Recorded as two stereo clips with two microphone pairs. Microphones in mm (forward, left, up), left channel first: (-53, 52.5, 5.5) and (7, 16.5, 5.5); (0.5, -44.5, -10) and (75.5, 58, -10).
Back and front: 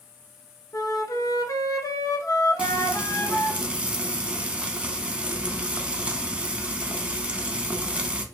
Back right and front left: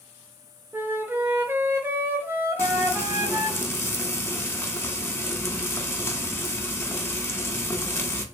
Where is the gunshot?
No gunshot in this recording.